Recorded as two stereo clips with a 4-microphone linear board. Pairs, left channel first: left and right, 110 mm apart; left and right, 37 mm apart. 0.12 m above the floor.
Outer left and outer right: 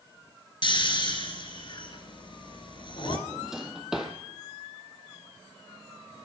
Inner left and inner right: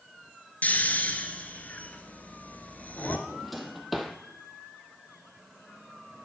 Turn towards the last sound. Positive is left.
turn(degrees=-5)  # may be behind; listen again after turning